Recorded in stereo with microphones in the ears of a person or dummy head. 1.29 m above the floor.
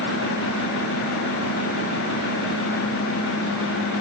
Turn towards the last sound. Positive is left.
No sound to turn to.